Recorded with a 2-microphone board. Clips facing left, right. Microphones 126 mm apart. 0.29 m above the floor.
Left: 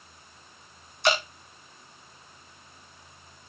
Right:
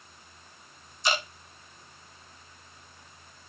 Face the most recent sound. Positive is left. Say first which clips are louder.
# left 5 dB
turn(degrees=65)  # may be behind; listen again after turning